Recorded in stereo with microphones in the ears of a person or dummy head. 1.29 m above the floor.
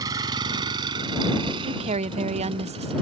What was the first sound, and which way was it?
A vehicle, 25° right (ahead or behind).